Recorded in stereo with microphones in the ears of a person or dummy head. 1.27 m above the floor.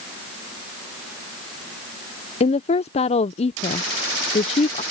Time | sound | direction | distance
2.4 | a woman speaking | 30° left (ahead or behind) | ?